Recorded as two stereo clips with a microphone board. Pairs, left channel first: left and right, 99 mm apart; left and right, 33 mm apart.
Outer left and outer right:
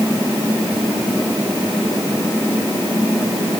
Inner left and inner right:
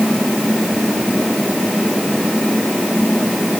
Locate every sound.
Only background noise.